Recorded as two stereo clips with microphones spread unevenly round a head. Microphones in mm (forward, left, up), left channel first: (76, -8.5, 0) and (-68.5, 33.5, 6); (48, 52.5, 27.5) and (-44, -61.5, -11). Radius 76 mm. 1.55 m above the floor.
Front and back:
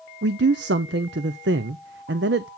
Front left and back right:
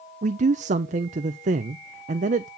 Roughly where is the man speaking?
Behind.